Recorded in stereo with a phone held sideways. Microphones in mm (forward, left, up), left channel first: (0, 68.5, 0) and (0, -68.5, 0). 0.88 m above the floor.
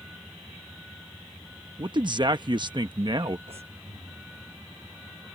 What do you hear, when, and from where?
0.0 s a vehicle: 5° right (ahead or behind)
1.8 s a man speaking: 35° right (ahead or behind)
3.5 s breathing: 45° right (ahead or behind)